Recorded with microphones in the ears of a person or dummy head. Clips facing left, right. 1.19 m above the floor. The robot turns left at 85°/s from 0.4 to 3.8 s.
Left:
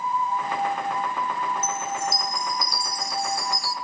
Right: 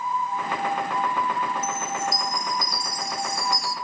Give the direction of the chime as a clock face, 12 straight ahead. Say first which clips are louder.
Even; 7 o'clock.